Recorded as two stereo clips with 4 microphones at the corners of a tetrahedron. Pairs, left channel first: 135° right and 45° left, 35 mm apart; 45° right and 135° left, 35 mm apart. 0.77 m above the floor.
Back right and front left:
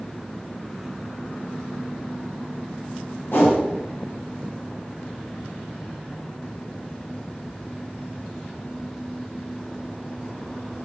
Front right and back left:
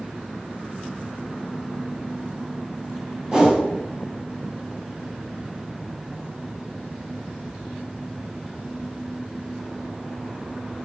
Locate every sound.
3.3 s a whoosh: 150° right, 2.5 m